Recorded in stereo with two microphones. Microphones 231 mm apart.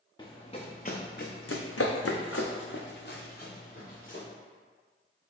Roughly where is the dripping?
No dripping in this recording.